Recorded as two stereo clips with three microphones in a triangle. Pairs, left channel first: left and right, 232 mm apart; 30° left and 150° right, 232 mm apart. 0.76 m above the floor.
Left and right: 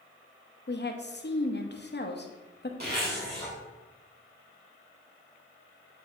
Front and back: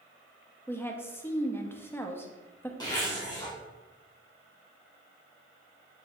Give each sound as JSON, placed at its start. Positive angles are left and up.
{"t": 0.7, "sound": "a woman speaking", "azimuth_deg": 105, "distance_m": 0.8}
{"t": 2.8, "sound": "a zipper", "azimuth_deg": -45, "distance_m": 2.5}